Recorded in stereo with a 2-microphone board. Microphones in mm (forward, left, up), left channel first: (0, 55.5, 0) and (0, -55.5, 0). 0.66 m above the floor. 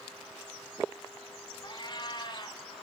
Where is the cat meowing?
40° left (ahead or behind), 2.5 m.